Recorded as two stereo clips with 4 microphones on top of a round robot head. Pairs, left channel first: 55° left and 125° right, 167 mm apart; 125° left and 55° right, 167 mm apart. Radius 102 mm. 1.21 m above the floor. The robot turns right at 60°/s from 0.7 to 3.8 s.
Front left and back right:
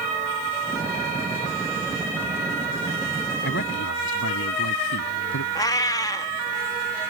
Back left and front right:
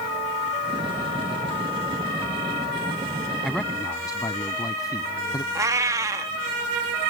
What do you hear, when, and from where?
3.4 s a man speaking: 30° left; by 5.5 s 50° left
5.5 s a cat meowing: 5° left